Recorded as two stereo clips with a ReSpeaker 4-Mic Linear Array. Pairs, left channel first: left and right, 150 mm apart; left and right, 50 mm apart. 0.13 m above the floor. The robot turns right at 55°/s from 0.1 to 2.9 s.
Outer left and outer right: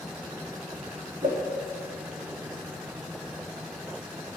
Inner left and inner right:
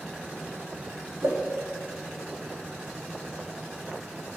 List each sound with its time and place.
1.2 s a whoosh: 55° right (ahead or behind), 3.5 m; by 1.4 s 45° right (ahead or behind), 3.5 m